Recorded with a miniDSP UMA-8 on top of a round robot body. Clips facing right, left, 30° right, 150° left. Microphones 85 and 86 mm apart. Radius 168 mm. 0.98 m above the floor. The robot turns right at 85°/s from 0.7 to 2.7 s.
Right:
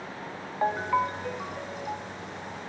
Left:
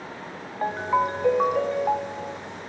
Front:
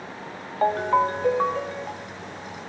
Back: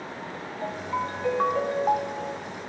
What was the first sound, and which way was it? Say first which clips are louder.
A ringtone: left 2 dB, front 10 dB; 5° right.